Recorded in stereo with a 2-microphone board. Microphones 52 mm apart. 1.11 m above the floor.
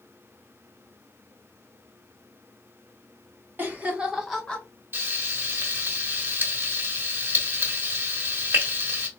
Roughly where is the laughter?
Right.